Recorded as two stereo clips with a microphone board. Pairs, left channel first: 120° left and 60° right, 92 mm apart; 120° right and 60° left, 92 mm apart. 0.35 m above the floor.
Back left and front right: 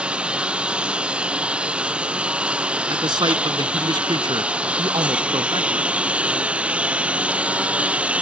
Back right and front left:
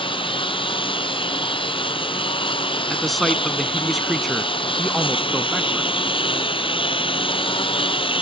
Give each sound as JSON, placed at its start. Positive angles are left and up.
{"t": 0.0, "sound": "a lawn mower", "azimuth_deg": -140}
{"t": 2.9, "sound": "a man speaking", "azimuth_deg": -30}